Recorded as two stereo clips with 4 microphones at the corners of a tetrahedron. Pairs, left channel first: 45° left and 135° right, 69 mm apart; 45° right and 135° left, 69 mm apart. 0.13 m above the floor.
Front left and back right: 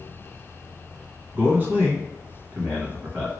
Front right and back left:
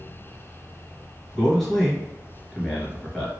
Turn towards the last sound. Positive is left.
turn(degrees=-130)